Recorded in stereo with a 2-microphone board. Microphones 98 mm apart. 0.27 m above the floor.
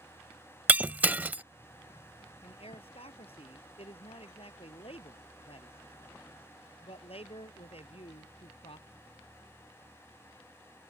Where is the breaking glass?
15° right (ahead or behind).